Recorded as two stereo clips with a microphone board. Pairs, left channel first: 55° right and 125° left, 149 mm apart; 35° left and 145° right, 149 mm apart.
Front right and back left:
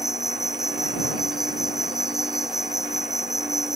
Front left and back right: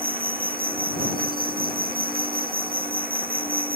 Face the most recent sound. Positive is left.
turn(degrees=-150)